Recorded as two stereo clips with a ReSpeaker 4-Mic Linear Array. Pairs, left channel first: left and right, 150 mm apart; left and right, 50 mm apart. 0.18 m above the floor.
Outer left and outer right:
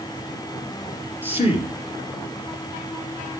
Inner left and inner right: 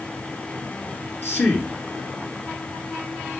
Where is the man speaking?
45° left (ahead or behind), 3.5 m.